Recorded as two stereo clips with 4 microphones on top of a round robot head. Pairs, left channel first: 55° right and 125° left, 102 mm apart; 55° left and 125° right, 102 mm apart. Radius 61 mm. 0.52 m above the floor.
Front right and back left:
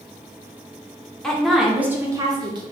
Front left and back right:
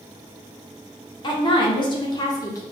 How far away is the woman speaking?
About 1.1 m.